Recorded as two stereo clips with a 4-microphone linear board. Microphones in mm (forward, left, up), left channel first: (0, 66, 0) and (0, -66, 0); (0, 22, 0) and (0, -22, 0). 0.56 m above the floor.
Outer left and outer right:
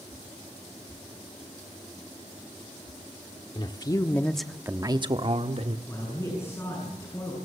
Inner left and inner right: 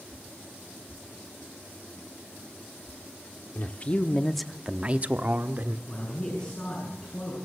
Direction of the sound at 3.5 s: 40° left (ahead or behind).